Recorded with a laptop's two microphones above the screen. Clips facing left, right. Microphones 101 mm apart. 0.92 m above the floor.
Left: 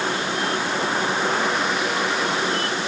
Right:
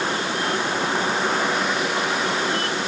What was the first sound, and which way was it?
Only background noise.